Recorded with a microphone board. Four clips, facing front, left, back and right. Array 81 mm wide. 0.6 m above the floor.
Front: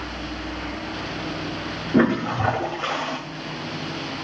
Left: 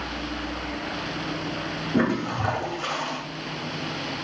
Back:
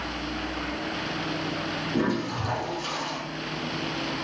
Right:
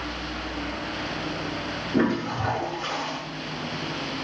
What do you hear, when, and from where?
1.9 s a toilet flushing: 10° left, 2.0 m